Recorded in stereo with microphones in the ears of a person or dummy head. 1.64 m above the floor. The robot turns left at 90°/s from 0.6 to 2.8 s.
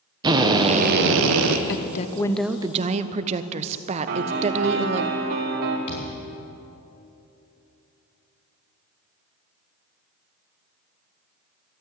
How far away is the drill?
About 1.1 m.